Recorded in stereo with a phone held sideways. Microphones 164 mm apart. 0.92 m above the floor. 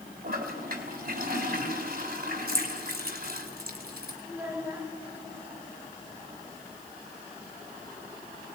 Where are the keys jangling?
80° right, 3.5 m.